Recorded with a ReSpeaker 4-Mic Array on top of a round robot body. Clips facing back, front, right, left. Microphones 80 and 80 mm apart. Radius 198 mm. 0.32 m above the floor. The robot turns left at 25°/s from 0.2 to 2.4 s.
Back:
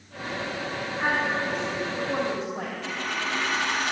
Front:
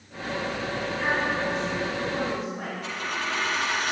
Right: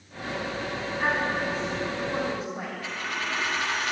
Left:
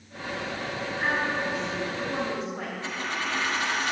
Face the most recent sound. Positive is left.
turn(degrees=150)